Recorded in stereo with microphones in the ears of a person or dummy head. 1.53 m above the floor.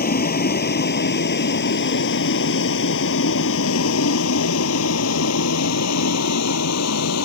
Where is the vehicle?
45° left (ahead or behind); by 7.3 s 85° left.